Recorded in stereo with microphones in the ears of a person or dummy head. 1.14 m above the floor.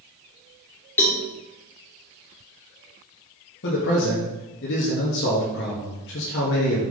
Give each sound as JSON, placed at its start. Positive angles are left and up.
{"t": 1.0, "sound": "a cowbell", "side_deg": 10, "distance_m": 1.6}
{"t": 3.6, "sound": "a man speaking", "side_deg": 65, "distance_m": 1.5}